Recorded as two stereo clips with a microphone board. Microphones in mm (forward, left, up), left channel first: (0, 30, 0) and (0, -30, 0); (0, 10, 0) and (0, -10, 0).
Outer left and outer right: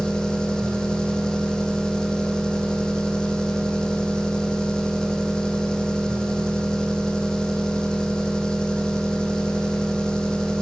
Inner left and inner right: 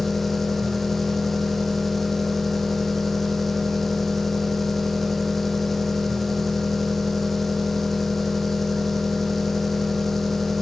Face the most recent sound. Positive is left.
turn(degrees=15)  # may be behind; listen again after turning